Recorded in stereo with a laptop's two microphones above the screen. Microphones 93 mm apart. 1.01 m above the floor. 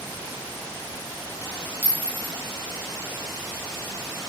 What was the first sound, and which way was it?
A clink, 20° right (ahead or behind).